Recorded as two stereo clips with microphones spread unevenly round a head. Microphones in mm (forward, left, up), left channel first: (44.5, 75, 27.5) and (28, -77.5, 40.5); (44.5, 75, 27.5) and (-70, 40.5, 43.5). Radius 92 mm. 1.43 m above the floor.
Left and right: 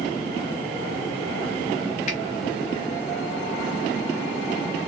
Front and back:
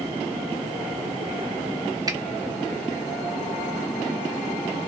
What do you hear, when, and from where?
2.1 s a finger snap: 140° left, 0.8 m